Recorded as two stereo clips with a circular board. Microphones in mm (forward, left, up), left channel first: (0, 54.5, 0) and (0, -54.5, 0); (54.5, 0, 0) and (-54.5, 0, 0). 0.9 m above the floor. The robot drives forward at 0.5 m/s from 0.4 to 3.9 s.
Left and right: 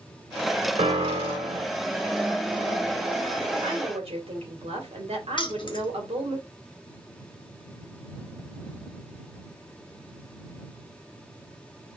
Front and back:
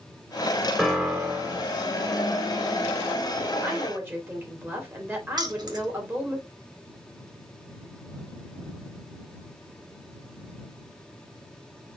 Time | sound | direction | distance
0.8 | a piano | 90° right | 0.9 m
3.6 | a woman speaking | 110° right | 2.0 m
5.4 | keys jangling | 130° left | 1.1 m